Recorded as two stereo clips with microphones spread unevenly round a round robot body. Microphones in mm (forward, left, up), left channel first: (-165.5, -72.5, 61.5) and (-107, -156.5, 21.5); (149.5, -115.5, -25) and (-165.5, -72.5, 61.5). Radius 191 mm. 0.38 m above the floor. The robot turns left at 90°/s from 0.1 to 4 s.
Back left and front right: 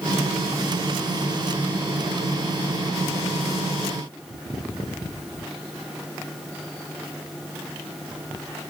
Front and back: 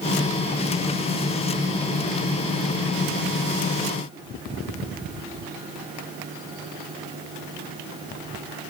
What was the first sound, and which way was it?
Only background noise.